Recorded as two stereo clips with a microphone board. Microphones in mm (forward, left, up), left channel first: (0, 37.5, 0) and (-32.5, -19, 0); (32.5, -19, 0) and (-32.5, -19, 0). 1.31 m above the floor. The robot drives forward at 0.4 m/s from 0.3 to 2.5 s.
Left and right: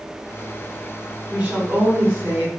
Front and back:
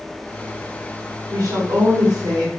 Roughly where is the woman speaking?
Behind.